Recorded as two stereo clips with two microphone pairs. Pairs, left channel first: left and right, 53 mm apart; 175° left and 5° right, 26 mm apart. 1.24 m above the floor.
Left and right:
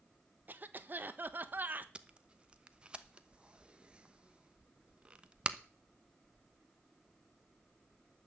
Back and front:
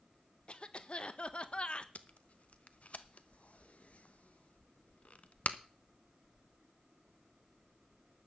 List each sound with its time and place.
0.5 s a cough: 140° right, 1.2 m
1.9 s tape being pulled: 160° right, 0.9 m